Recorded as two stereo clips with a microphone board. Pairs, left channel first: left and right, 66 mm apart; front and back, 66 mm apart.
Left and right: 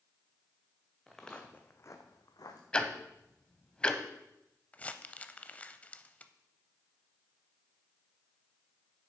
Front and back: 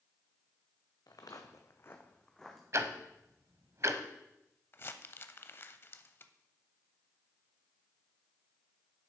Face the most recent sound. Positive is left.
turn(degrees=30)